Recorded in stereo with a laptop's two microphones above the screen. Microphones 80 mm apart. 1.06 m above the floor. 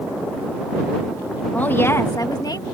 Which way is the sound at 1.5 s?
20° left (ahead or behind).